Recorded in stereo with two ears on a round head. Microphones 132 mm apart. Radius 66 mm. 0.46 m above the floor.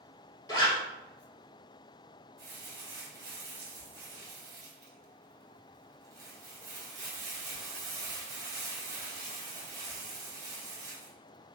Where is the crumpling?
25° right (ahead or behind), 1.2 m.